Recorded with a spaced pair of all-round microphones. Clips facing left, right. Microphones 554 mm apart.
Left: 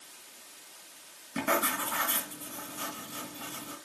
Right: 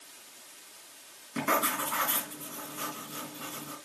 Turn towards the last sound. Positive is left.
turn(degrees=10)  # may be behind; listen again after turning